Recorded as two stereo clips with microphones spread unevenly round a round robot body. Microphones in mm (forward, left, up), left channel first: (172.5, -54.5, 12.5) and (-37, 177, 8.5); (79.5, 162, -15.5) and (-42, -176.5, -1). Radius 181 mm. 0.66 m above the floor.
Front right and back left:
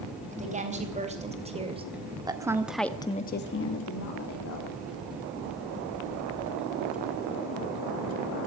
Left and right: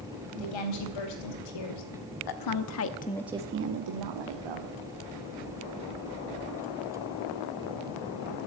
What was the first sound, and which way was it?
A woman speaking, 65° left.